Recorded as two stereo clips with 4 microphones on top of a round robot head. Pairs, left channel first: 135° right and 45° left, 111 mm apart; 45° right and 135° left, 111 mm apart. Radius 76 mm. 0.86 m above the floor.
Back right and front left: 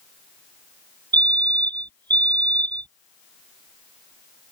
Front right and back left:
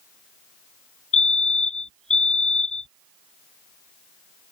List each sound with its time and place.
1.1 s a fire alarm: 10° right